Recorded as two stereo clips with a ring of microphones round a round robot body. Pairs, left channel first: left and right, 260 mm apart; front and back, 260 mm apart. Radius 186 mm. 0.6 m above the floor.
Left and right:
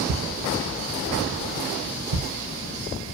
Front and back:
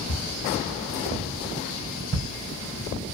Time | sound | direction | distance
0.1 | footsteps | 55° right | 1.3 m